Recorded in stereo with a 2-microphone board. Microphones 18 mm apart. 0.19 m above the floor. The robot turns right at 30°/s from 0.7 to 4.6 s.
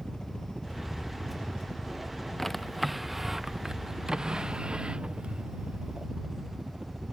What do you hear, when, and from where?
0.0 s a helicopter: 50° left (ahead or behind); by 7.1 s 30° right (ahead or behind)
2.4 s a drawer: 10° left (ahead or behind); by 6.1 s 55° right (ahead or behind)